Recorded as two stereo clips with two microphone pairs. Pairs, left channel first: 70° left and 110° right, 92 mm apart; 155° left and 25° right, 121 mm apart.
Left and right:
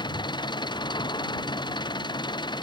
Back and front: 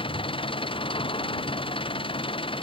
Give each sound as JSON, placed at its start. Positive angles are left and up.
{"t": 0.0, "sound": "an engine running", "azimuth_deg": 110}